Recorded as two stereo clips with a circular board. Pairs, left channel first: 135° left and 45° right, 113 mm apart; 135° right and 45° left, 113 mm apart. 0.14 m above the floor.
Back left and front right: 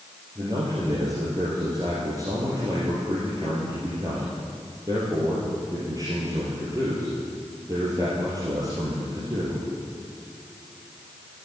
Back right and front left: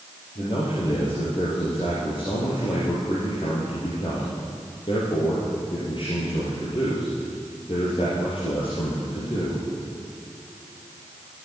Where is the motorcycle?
No motorcycle in this recording.